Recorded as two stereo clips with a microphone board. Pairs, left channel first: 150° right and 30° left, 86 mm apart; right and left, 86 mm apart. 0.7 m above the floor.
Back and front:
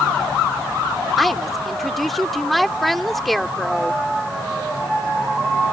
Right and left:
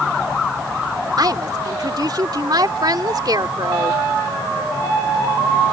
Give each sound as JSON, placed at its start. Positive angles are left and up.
{"t": 1.2, "sound": "a woman speaking", "azimuth_deg": 120}